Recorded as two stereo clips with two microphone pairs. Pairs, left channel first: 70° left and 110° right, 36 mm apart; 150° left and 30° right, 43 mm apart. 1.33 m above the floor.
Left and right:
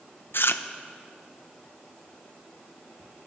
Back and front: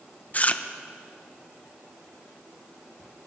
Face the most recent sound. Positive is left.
turn(degrees=90)